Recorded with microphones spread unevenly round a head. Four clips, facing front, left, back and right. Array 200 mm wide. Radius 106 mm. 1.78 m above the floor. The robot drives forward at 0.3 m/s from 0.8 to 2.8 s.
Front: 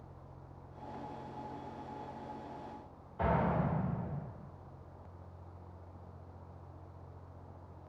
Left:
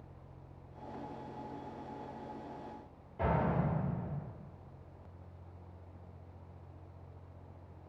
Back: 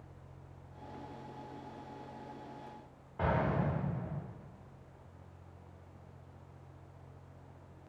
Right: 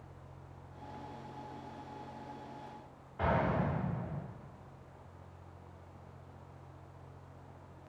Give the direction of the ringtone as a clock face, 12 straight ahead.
No ringtone in this recording.